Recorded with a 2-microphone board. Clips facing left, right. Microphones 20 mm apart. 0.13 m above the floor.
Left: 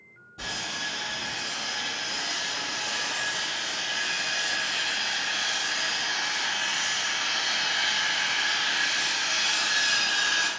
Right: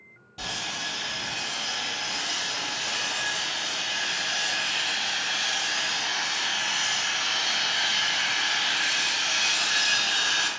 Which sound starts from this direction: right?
Sawing, at 0.4 s.